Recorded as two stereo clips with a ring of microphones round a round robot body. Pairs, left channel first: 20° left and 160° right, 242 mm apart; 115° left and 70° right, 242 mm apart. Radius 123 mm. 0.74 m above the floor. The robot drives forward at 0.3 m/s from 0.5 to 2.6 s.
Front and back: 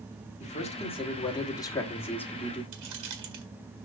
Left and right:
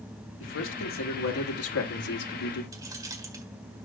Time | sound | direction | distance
0.4 | a man speaking | 85° left | 1.5 m
2.7 | keys jangling | 145° right | 1.6 m